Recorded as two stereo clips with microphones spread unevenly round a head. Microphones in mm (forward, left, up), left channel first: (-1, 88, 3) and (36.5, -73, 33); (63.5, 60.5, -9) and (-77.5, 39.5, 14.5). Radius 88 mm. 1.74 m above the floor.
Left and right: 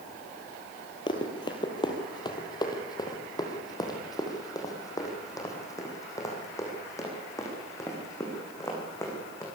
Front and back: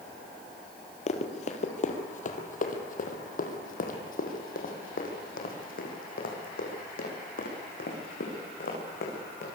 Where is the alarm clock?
No alarm clock in this recording.